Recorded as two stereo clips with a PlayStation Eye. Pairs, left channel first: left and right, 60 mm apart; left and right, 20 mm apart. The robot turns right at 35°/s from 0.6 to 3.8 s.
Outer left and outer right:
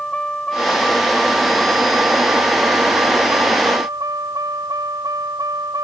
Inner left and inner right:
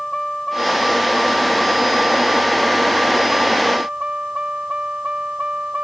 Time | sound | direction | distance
0.0 | a vehicle | 15° left (ahead or behind) | ?